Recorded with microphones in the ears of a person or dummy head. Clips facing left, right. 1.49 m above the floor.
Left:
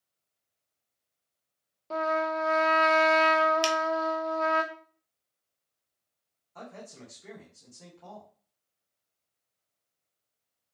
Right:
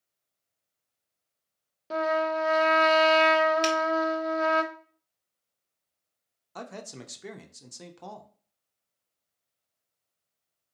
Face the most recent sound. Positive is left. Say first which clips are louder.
# right 4 dB
turn(degrees=-85)